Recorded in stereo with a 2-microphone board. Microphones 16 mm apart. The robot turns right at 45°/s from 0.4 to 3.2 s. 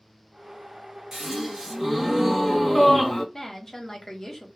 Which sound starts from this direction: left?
A woman speaking, at 3.3 s.